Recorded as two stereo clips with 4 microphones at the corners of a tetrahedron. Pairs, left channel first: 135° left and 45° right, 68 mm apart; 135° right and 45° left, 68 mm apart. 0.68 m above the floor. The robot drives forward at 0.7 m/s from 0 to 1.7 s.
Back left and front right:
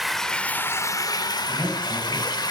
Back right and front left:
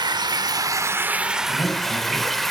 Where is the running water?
45° left, 0.8 m; by 2.5 s 135° left, 0.8 m.